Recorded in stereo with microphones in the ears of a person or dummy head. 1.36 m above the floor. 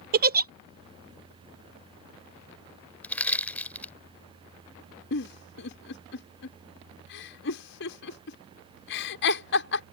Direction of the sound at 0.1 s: 45° right (ahead or behind).